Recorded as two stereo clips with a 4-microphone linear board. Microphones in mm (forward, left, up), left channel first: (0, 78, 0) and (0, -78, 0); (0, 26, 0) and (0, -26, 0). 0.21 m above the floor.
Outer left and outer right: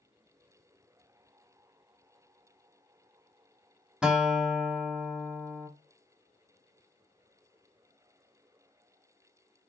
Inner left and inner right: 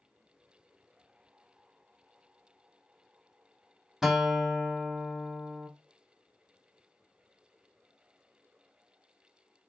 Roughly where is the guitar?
Centre.